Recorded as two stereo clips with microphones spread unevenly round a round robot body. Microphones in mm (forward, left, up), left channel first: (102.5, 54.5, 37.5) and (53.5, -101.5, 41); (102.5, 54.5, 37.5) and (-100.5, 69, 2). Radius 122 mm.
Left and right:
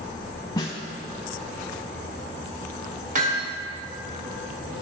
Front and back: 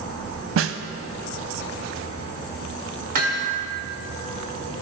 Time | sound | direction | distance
0.6 | a snare drum | 145° left | 0.6 m
3.1 | hammering | 150° right | 1.9 m